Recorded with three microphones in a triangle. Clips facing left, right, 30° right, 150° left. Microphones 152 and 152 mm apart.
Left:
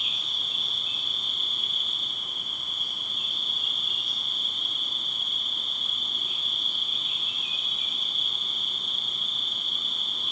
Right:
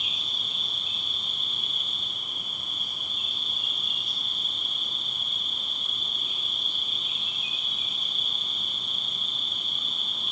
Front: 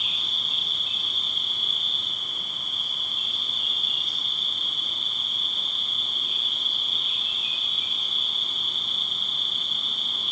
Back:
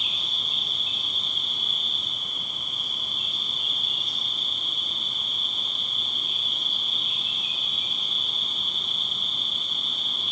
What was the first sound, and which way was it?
An insect, 55° left.